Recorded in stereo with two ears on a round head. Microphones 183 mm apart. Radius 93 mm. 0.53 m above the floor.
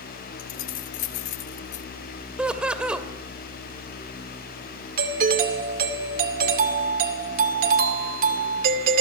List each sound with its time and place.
0.4 s keys jangling: 70° left (ahead or behind), 1.7 m; by 1.9 s 55° left (ahead or behind), 1.0 m
2.4 s laughter: 5° right (ahead or behind), 2.5 m
5.0 s a doorbell: 45° right (ahead or behind), 2.5 m